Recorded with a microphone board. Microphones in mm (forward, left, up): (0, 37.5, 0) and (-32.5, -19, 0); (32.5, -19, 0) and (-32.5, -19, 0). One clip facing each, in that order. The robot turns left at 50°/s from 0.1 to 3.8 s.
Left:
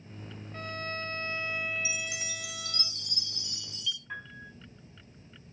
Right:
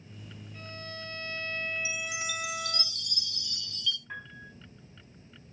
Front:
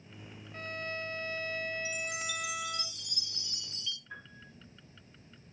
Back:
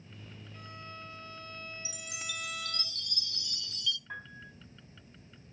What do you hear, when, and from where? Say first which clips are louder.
0.5 s a violin: left 7 dB, front 9 dB; 35° left, 1.2 m; by 2.9 s 85° right, 1.2 m
1.9 s a chime: right 2 dB, front 7 dB; 110° left, 0.8 m; by 4.0 s 15° left, 0.8 m
4.1 s a piano: left 1 dB, back 4 dB; 155° left, 5 m